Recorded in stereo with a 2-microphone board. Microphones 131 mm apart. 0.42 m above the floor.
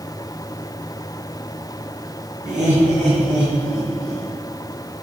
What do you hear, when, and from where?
2.5 s laughter: 70° right (ahead or behind), 3.5 m; by 4.3 s 20° right (ahead or behind), 2.5 m